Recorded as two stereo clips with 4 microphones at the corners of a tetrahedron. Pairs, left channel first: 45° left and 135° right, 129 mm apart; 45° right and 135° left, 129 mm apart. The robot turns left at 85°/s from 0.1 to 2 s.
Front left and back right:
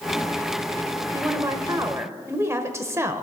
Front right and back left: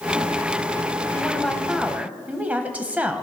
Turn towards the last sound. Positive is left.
turn(degrees=-165)